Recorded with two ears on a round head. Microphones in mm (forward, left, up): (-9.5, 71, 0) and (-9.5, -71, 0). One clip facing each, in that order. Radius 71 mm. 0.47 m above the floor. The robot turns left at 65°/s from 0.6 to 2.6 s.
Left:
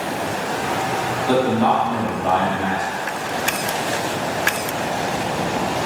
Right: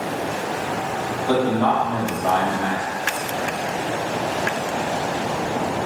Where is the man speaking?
20° left (ahead or behind), 0.7 m; by 2.8 s 5° left (ahead or behind), 0.7 m.